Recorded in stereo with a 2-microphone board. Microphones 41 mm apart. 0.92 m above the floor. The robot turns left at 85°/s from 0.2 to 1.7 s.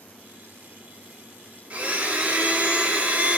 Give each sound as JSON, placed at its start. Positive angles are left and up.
{"t": 1.7, "sound": "a blender", "side_deg": -35, "distance_m": 0.7}